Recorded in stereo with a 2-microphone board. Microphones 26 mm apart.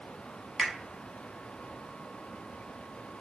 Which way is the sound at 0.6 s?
20° left (ahead or behind).